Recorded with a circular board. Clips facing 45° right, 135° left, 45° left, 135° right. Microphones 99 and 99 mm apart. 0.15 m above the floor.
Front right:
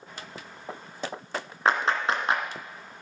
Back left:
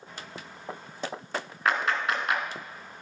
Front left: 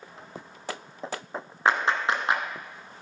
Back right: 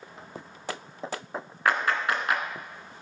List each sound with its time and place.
1.6 s a clap: 5° right, 1.5 m